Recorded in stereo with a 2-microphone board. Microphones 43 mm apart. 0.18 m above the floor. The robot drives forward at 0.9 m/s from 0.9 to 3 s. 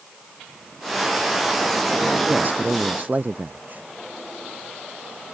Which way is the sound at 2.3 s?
45° right (ahead or behind).